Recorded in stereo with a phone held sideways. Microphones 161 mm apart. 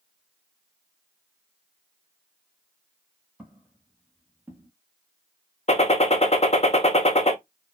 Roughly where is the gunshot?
Left.